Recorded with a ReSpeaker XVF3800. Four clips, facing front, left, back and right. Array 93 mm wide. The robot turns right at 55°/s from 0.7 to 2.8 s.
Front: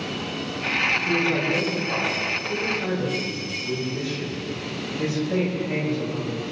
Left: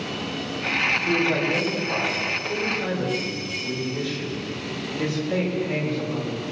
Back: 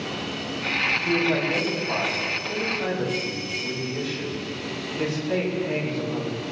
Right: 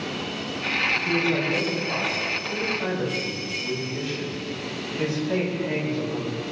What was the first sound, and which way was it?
A man speaking, 140° left.